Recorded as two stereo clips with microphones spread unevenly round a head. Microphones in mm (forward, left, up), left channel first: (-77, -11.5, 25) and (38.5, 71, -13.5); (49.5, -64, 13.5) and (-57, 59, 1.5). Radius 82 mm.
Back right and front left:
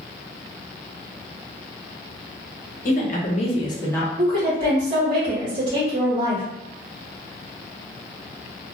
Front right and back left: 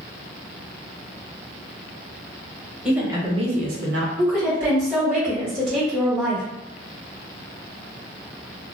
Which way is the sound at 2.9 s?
145° right.